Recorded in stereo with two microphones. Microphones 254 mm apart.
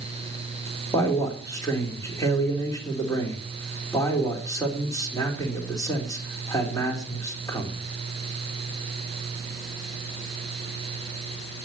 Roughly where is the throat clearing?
No throat clearing in this recording.